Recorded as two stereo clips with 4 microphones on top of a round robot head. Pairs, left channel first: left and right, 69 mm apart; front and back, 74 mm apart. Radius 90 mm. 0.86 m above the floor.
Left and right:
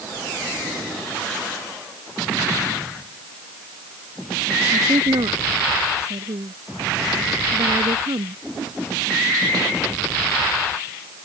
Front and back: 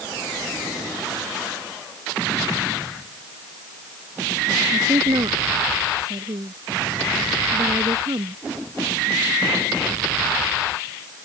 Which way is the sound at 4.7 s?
130° right.